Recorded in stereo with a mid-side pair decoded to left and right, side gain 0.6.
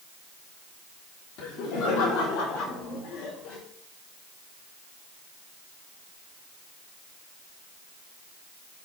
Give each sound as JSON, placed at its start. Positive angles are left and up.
{"t": 1.4, "sound": "laughter", "azimuth_deg": 60, "distance_m": 3.5}